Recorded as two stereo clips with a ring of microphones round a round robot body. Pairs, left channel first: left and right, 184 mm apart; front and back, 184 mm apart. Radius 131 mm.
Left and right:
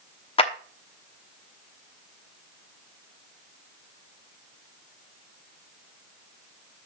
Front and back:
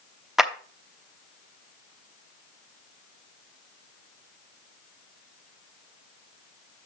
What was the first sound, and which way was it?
A clap, 95° left.